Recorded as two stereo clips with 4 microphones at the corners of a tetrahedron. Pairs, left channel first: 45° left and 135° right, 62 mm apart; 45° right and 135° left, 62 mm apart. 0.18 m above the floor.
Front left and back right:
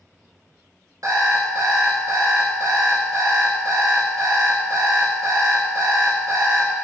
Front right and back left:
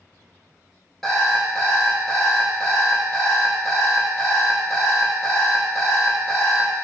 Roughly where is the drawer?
No drawer in this recording.